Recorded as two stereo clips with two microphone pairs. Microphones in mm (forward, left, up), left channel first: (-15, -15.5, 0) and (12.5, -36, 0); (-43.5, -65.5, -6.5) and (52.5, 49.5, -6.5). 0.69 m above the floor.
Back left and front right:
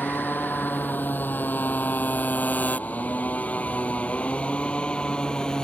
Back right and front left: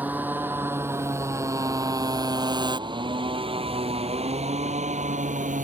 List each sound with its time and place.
0.0 s a motorcycle: 130° left; by 5.7 s 80° left